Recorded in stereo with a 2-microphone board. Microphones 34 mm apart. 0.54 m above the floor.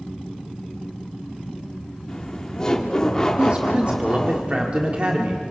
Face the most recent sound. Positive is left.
turn(degrees=-35)  # may be behind; listen again after turning